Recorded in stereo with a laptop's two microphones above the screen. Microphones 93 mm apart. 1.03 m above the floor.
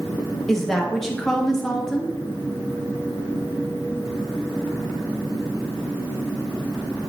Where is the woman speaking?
5° left (ahead or behind), 1.0 m.